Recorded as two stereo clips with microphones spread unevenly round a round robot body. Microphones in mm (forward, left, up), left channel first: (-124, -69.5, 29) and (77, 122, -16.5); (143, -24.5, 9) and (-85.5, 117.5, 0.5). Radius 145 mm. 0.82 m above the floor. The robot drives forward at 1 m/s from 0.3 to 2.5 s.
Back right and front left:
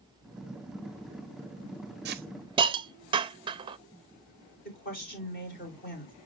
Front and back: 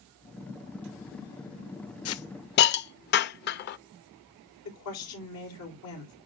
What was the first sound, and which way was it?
A hiss, 5° right.